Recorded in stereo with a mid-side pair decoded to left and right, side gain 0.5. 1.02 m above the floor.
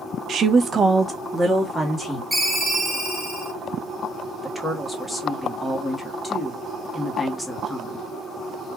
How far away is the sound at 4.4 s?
About 1.6 m.